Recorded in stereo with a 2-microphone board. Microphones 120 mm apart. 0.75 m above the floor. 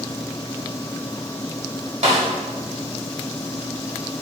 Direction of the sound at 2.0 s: 75° right (ahead or behind).